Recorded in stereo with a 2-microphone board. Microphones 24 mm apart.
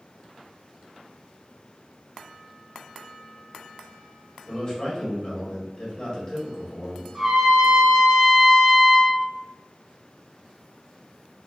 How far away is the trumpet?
About 0.6 m.